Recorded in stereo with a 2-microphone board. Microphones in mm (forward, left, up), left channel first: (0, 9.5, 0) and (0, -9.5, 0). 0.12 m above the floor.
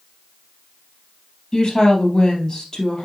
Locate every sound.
1.5 s a woman speaking: 35° left (ahead or behind), 3 m